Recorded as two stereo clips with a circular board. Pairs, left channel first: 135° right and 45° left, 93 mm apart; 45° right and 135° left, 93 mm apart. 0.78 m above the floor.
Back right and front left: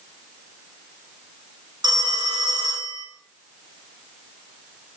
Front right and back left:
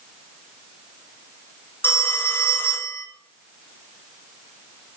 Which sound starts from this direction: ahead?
A phone ringing, at 1.8 s.